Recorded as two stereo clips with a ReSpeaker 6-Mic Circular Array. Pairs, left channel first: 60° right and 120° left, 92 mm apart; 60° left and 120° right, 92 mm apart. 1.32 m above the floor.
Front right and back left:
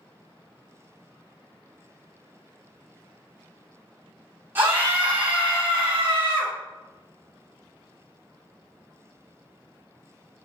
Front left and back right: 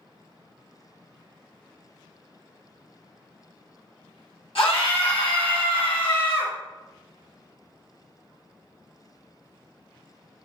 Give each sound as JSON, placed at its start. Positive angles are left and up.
{"t": 4.5, "sound": "a scream", "azimuth_deg": 50, "distance_m": 1.7}